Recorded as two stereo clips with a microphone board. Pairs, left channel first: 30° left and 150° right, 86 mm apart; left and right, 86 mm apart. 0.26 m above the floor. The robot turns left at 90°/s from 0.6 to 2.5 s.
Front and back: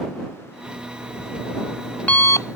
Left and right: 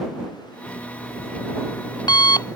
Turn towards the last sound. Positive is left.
turn(degrees=60)